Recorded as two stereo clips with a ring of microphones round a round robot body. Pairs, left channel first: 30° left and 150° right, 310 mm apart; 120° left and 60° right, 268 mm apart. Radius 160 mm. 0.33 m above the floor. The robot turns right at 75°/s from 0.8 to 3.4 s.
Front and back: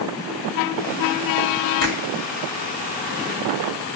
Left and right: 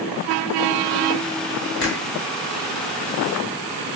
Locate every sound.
1.8 s a finger snap: 85° left, 3.5 m; by 2.0 s 100° left, 3.5 m